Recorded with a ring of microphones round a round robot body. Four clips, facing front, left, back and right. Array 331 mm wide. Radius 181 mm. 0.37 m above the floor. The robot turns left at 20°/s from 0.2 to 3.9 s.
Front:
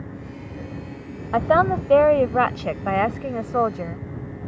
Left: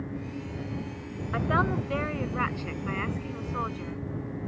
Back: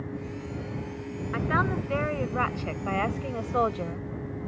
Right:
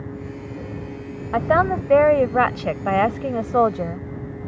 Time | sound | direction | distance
1.3 | a woman speaking | 30° right | ?